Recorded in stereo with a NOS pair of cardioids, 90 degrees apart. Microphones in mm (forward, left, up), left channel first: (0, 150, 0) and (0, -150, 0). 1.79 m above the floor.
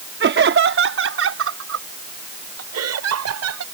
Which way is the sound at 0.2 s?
40° right.